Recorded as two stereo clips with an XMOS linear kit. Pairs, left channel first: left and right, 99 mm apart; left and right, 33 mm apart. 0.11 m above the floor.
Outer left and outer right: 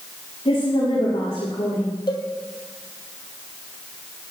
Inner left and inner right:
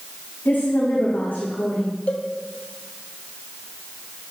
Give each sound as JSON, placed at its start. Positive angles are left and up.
{"t": 0.5, "sound": "a woman speaking", "side_deg": 80, "distance_m": 9.0}
{"t": 2.1, "sound": "a cowbell", "side_deg": 50, "distance_m": 2.5}